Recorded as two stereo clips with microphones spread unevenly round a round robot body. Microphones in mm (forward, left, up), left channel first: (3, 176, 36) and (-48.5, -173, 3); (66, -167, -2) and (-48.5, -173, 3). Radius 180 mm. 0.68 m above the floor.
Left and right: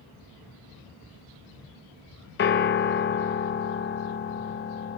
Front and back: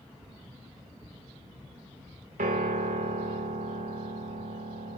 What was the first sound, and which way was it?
A piano, 145° left.